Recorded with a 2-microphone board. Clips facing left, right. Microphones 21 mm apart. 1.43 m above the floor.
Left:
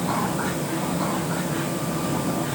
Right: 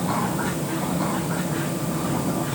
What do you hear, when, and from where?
Only background noise.